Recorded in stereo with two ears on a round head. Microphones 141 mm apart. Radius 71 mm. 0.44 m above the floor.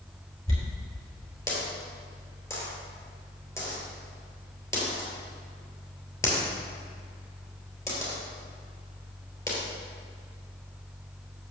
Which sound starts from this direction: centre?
A dropped coin, at 0.5 s.